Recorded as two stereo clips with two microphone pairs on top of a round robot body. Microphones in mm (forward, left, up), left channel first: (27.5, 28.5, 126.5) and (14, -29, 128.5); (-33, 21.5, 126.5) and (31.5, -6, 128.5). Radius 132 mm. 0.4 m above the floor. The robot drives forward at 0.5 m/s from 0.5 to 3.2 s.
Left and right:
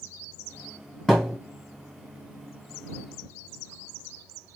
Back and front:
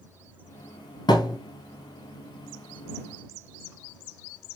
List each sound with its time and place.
1.1 s a thud: 160° left, 1.4 m